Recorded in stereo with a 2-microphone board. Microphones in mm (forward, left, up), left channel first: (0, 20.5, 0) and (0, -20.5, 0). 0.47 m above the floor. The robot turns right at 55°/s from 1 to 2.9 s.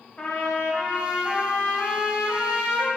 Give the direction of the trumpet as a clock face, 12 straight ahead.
11 o'clock.